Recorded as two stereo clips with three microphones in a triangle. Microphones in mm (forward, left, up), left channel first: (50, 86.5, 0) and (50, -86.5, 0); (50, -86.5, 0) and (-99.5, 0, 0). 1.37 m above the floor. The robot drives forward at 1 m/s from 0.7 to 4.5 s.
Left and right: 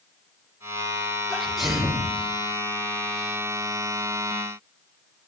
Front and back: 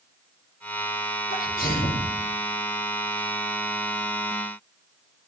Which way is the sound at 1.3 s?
Straight ahead.